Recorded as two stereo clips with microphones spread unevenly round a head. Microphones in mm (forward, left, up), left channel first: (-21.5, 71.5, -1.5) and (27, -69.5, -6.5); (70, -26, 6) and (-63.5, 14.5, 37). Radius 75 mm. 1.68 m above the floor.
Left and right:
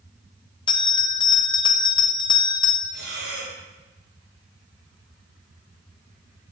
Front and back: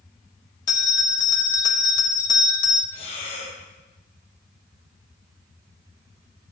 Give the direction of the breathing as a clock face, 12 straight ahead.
2 o'clock.